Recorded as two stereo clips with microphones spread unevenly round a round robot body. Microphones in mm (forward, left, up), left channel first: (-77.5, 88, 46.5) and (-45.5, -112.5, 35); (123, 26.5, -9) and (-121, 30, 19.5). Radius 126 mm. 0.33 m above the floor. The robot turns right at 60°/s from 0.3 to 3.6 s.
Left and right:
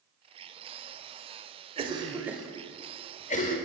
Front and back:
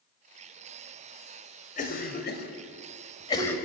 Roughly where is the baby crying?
No baby crying in this recording.